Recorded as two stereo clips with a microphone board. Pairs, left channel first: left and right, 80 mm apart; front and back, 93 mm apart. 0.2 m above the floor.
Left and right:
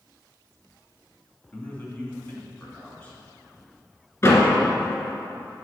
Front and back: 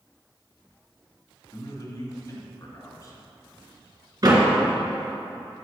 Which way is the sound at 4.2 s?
140° left.